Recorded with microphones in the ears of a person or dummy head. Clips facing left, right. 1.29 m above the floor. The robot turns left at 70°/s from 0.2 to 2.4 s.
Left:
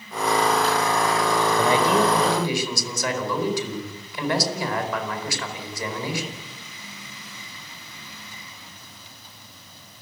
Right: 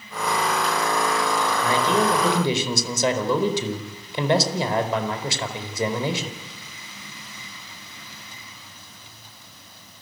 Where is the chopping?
I don't hear chopping.